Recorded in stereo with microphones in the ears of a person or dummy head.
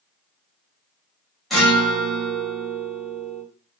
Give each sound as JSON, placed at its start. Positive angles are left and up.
{"t": 1.5, "sound": "a guitar", "side_deg": 0, "distance_m": 0.9}